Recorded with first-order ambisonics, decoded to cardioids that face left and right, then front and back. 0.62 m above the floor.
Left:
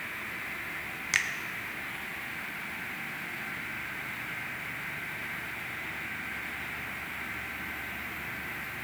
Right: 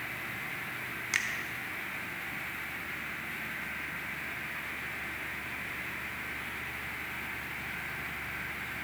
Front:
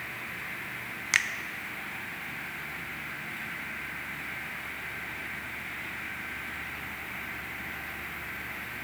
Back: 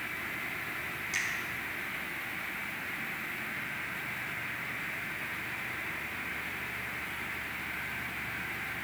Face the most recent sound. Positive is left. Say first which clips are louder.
# left 3 dB, front 8 dB
turn(degrees=15)